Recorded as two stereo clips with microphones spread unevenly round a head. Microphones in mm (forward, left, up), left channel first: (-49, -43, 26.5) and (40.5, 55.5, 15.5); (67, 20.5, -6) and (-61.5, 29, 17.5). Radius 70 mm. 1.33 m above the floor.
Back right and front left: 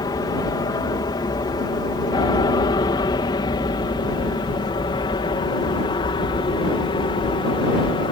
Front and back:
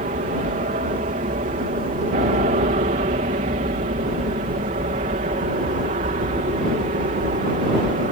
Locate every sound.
0.0 s an aircraft: 170° left; by 8.1 s 175° right